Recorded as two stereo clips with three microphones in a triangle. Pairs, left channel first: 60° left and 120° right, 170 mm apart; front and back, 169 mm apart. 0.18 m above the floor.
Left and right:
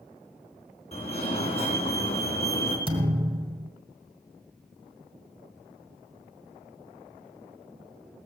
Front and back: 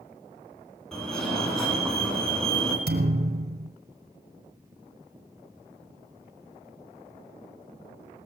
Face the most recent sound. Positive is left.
turn(degrees=-175)